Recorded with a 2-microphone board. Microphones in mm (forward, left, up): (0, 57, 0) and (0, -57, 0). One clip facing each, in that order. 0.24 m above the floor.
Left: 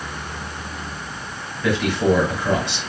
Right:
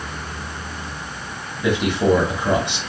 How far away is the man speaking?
About 1.4 m.